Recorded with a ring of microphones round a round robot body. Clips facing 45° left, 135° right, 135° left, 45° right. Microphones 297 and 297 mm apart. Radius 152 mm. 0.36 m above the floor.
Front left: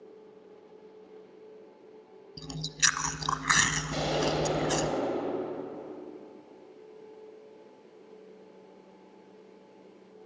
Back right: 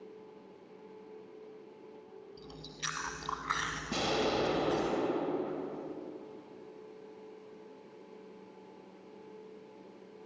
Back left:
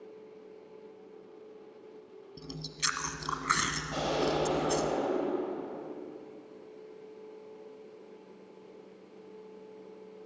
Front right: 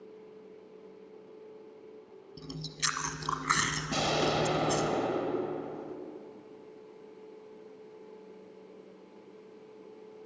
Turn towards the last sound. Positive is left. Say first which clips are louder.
# front left 2 dB, even
turn(degrees=-70)